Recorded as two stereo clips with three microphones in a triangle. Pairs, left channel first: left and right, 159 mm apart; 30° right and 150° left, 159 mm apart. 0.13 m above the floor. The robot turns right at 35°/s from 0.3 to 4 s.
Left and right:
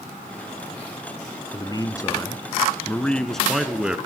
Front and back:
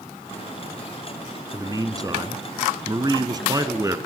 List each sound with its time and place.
1.5 s a man speaking: 110° left, 1.3 m; by 4.0 s 165° right, 1.3 m